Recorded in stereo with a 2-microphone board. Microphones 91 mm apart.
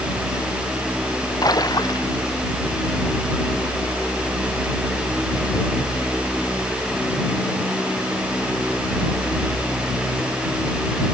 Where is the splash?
45° left (ahead or behind).